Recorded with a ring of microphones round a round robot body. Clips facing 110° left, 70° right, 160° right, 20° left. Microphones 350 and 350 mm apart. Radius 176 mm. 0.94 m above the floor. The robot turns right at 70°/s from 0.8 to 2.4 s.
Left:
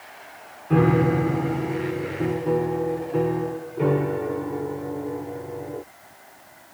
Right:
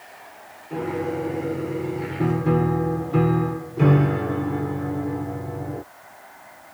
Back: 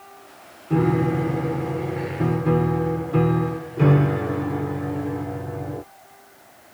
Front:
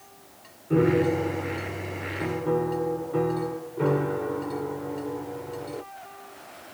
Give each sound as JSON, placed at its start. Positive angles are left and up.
{"t": 0.7, "sound": "a piano", "azimuth_deg": 130}